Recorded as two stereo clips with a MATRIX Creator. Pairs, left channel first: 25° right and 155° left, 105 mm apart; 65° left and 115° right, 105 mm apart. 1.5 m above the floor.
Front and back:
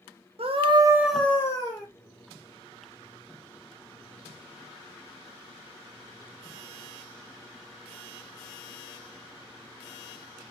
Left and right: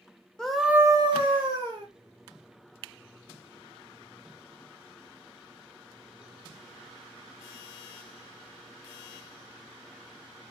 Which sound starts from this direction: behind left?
A scream, at 0.4 s.